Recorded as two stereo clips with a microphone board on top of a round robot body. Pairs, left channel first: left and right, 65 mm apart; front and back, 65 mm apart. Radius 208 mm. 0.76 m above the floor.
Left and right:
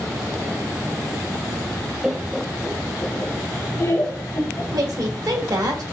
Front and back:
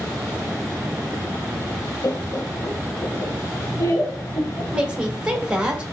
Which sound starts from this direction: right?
A woman speaking, at 4.7 s.